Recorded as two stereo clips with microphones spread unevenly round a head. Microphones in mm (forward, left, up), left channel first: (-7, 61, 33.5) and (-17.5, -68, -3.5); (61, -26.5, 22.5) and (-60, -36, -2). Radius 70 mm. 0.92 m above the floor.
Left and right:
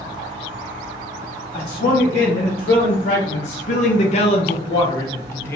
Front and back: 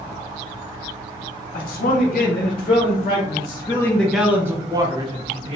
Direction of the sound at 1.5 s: 25° left.